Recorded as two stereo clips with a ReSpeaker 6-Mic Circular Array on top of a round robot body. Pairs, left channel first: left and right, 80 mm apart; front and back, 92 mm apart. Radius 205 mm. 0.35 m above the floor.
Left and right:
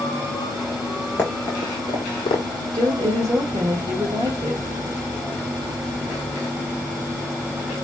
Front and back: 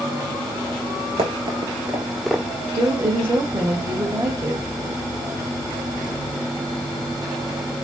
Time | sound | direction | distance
1.2 | running footsteps | 160° left | 0.6 m
2.7 | a woman speaking | 120° right | 1.6 m